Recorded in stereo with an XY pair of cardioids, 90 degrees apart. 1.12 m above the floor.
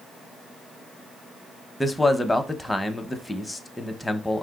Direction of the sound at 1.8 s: 10° left.